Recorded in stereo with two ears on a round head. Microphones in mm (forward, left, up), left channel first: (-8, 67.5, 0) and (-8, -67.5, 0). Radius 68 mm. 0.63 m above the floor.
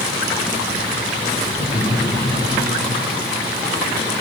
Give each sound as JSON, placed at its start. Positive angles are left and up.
{"t": 1.5, "sound": "laughter", "side_deg": 45, "distance_m": 7.0}